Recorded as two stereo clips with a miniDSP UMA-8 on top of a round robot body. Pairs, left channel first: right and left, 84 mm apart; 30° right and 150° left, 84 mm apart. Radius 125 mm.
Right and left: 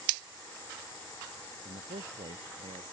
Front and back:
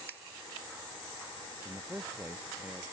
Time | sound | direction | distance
1.6 | a man speaking | 70° left | ?